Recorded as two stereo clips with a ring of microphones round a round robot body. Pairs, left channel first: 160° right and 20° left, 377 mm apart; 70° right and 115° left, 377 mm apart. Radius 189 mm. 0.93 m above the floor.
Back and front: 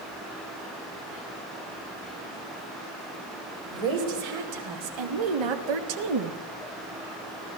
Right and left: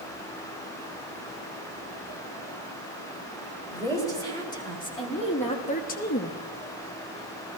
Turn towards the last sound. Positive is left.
turn(degrees=-10)